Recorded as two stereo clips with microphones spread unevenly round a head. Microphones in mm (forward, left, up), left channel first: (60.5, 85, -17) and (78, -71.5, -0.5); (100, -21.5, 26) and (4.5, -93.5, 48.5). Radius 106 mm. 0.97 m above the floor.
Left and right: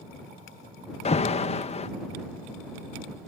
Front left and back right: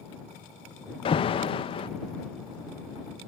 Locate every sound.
1.1 s an alarm: 60° left